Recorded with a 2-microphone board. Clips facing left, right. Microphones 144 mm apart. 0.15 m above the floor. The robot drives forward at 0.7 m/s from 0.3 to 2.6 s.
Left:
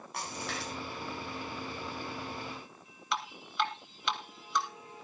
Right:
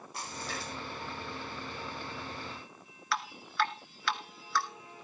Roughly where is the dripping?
Left.